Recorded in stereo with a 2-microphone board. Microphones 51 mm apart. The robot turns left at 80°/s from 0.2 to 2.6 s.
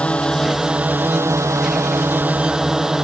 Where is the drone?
25° left; by 3.0 s 170° right.